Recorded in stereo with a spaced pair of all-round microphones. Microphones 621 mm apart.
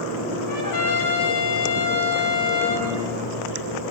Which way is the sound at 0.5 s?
30° left (ahead or behind).